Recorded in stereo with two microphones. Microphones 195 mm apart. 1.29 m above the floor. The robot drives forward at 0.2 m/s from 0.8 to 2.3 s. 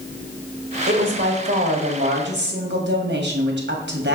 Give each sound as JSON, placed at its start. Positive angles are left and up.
{"t": 0.9, "sound": "a woman speaking", "side_deg": -75, "distance_m": 1.9}